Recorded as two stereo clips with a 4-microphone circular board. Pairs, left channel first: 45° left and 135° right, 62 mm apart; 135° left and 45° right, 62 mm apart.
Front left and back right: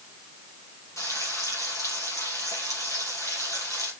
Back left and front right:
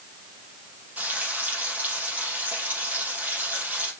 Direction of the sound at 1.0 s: 15° left.